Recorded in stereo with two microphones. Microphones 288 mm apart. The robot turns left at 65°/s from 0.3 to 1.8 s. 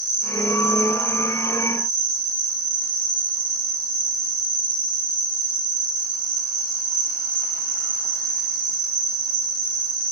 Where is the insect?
30° left, 2.5 m; by 10.1 s 65° right, 2.5 m.